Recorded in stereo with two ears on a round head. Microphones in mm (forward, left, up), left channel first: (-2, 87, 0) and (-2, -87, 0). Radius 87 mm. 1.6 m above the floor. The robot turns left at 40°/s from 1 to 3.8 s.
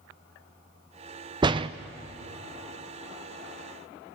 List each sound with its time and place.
1.4 s a door slam: 25° right (ahead or behind), 0.6 m; by 1.7 s 30° right (ahead or behind), 0.6 m